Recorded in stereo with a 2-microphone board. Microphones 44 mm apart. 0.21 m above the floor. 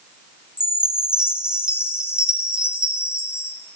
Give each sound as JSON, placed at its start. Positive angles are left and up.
{"t": 0.6, "sound": "a chime", "side_deg": -20, "distance_m": 3.0}